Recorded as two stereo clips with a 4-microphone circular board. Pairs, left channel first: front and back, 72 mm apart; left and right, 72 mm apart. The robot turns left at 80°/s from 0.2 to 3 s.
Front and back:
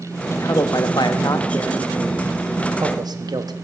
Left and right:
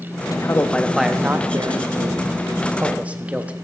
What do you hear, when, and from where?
0.3 s a man speaking: 55° left, 1.2 m; by 3.5 s 160° right, 1.2 m